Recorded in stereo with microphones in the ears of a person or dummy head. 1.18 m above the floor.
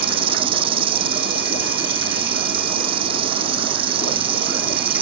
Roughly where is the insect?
Right.